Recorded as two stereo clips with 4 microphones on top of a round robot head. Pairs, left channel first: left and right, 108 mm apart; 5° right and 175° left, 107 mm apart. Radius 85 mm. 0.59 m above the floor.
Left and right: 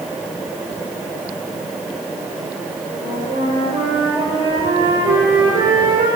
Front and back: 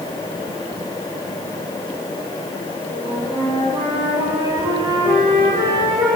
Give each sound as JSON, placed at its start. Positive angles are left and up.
{"t": 2.9, "sound": "a flute", "azimuth_deg": -130, "distance_m": 7.0}